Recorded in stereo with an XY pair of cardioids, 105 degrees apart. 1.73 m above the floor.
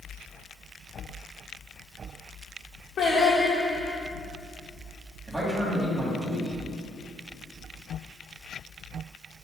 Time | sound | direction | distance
3.0 | singing | 60° left | 1.9 m
5.3 | a man speaking | 10° right | 2.5 m